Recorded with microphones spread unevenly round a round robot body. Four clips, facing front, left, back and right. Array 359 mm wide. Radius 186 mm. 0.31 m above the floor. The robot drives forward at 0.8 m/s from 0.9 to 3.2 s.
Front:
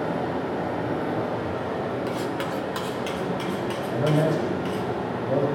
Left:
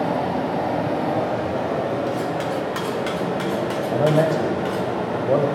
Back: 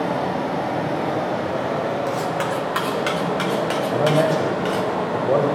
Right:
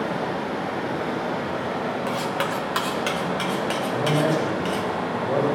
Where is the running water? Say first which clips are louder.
Left 4 dB, back 4 dB; 125° left, 3 m; by 5.5 s 145° left, 4 m.